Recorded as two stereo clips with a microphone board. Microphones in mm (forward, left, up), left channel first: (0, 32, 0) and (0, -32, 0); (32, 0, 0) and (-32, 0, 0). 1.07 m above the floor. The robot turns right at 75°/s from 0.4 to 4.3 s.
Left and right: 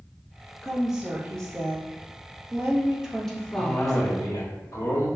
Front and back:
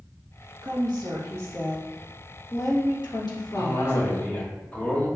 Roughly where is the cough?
Ahead.